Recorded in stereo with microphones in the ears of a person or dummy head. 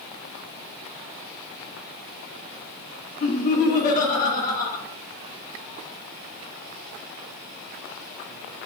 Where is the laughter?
40° left (ahead or behind), 0.8 m.